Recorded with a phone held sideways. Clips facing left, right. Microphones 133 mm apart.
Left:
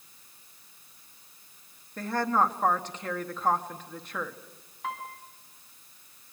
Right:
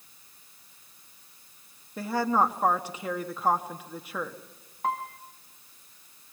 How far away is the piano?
About 1.8 m.